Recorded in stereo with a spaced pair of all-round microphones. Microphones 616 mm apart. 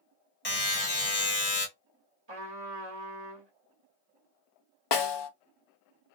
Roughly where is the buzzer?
Left.